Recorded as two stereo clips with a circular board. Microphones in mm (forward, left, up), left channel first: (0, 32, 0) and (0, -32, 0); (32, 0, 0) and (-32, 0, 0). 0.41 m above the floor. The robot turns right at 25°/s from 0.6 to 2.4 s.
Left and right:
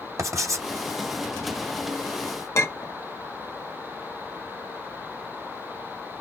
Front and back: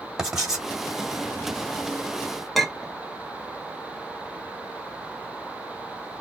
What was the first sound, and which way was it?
Writing, 100° right.